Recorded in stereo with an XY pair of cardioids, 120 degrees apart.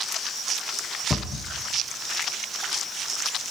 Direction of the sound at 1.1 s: 30° left.